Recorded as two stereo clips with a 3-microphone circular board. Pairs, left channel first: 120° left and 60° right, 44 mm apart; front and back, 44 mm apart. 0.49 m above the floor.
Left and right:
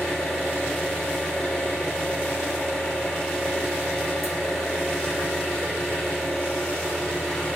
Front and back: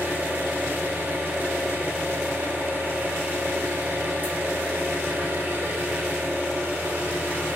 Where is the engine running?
145° right, 1.6 m.